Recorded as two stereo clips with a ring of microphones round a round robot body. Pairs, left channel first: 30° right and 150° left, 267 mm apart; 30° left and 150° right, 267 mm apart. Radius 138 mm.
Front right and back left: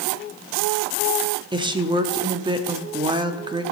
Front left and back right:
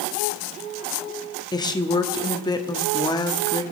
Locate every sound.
1.5 s a woman speaking: 90° left, 0.8 m